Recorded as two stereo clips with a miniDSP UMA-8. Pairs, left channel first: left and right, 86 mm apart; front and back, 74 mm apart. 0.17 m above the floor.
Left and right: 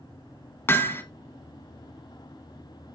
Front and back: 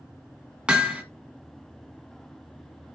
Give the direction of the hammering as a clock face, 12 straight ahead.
8 o'clock.